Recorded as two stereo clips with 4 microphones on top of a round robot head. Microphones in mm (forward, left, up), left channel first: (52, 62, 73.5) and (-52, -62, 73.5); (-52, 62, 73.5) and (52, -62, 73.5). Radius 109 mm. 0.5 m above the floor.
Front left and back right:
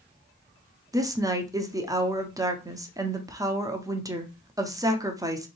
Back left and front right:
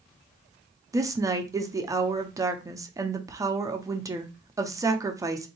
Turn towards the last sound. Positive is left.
turn(degrees=-95)